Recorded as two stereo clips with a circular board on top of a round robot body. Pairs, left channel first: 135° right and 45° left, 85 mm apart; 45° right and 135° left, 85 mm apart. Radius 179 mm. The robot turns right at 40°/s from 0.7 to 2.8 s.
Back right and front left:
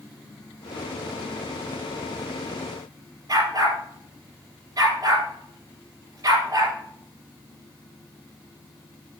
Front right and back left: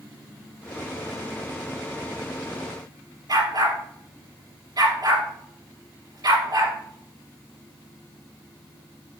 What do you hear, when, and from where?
3.3 s a dog barking: 95° left, 3.5 m